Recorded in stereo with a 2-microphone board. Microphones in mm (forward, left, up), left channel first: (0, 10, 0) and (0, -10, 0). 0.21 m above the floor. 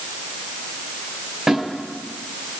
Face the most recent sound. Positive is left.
turn(degrees=-30)  # may be behind; listen again after turning